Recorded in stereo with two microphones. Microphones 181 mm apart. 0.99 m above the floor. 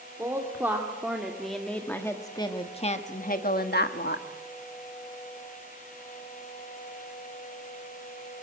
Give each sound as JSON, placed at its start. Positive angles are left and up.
{"t": 0.2, "sound": "a woman speaking", "side_deg": -15, "distance_m": 2.5}